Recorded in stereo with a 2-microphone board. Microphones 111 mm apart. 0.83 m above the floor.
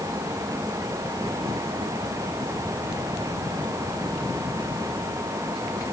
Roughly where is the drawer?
I don't hear a drawer.